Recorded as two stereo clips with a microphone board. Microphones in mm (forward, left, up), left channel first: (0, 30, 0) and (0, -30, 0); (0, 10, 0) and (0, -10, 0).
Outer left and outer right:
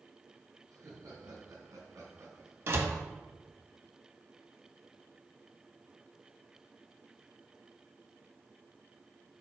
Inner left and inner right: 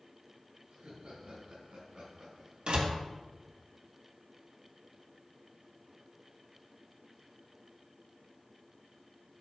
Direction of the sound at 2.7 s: 50° right (ahead or behind).